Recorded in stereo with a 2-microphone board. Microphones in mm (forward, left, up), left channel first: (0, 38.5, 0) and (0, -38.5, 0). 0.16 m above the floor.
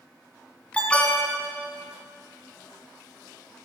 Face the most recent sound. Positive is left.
turn(degrees=15)  # may be behind; listen again after turning